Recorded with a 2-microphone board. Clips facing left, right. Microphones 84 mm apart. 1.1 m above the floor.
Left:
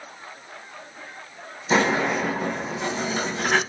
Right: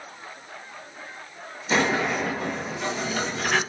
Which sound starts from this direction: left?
A sliding door, at 1.7 s.